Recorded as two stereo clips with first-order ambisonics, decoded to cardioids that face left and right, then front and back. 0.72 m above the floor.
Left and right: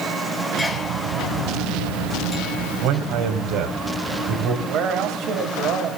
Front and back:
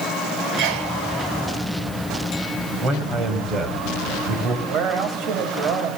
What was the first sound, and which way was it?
A sneeze, straight behind.